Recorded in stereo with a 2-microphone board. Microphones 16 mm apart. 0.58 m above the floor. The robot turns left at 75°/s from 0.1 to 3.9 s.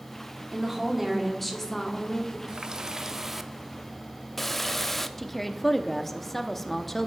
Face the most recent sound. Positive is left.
turn(degrees=15)  # may be behind; listen again after turning